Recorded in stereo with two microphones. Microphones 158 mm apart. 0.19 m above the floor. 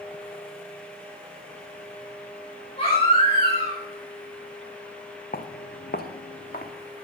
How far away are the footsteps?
About 0.9 m.